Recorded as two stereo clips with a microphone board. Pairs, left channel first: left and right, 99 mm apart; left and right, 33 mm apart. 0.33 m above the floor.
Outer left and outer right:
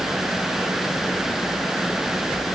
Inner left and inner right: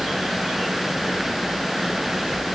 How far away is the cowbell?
I don't hear a cowbell.